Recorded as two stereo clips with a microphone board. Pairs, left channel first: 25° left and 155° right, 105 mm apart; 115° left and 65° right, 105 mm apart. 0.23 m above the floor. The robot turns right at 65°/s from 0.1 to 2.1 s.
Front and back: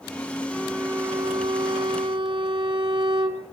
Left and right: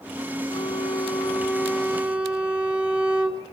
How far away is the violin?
About 2 m.